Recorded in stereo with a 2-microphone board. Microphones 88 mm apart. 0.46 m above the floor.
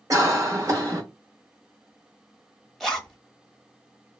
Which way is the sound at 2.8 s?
Centre (ahead or behind).